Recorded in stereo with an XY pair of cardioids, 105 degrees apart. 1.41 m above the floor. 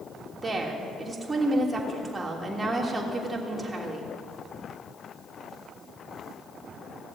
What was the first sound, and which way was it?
A woman speaking, 20° right.